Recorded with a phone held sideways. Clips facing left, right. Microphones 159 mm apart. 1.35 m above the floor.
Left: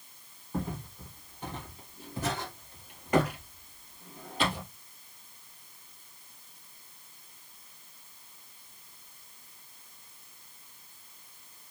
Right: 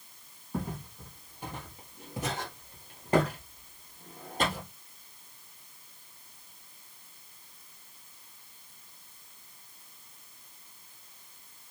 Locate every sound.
0.5 s footsteps: 5° right (ahead or behind), 2.5 m; by 4.6 s 45° right (ahead or behind), 2 m